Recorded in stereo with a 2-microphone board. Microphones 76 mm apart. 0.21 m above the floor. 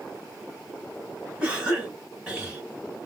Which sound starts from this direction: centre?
A cough, at 1.4 s.